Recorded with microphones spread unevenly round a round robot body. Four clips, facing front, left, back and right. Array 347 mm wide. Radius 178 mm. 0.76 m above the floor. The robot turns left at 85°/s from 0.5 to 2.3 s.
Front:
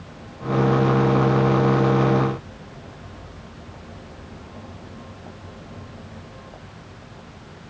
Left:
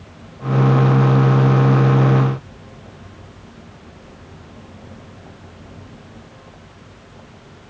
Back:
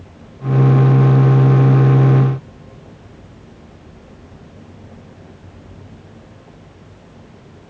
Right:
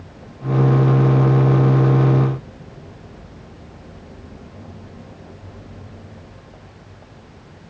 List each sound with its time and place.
Only background noise.